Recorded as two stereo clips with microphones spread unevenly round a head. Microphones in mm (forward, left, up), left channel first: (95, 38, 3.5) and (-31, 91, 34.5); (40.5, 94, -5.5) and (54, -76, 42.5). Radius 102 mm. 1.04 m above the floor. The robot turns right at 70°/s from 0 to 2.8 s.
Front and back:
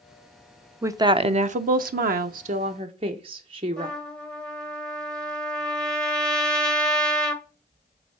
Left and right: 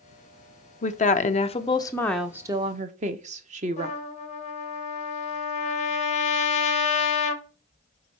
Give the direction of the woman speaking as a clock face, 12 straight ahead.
9 o'clock.